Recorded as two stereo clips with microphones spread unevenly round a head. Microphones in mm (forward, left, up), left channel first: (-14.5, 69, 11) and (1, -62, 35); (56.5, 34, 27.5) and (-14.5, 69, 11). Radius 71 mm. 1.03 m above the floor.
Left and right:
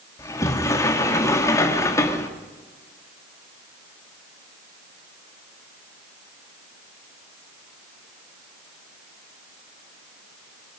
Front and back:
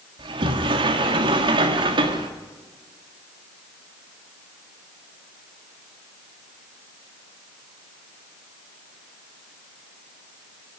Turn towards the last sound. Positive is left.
turn(degrees=165)